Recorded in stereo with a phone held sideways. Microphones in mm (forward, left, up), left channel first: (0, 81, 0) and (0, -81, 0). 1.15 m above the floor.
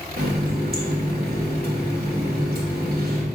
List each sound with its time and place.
0.2 s a running tap: 75° right (ahead or behind), 0.9 m